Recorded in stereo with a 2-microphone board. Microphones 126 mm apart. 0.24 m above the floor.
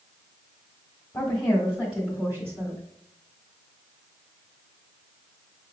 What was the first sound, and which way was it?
A woman speaking, 15° left (ahead or behind).